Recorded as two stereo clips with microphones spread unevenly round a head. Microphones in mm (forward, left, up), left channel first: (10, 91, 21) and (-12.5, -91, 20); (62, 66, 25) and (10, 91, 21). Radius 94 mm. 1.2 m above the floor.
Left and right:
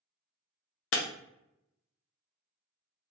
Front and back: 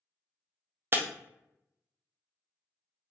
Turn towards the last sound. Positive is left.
turn(degrees=100)